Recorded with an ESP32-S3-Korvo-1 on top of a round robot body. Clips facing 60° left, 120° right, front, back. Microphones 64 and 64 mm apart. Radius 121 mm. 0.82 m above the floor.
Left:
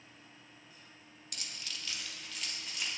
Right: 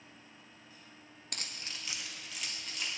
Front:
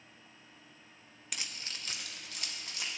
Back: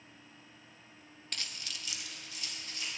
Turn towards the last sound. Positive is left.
turn(degrees=-25)